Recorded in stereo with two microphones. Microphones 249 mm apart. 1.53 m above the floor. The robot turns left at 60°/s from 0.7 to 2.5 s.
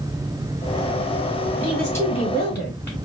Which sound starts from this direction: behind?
A woman speaking, at 1.6 s.